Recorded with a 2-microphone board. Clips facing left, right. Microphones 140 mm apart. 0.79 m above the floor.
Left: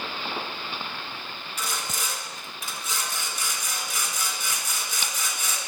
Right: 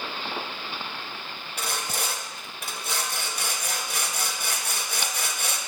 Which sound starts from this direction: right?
Sawing, at 1.6 s.